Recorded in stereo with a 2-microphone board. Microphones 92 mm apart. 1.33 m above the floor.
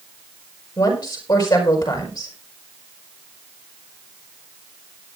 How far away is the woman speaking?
About 6 m.